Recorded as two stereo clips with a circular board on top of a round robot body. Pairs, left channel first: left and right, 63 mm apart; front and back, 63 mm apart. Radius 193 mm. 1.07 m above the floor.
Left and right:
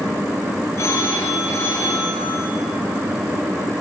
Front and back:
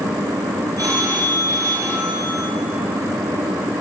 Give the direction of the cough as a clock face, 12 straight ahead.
I don't hear a cough.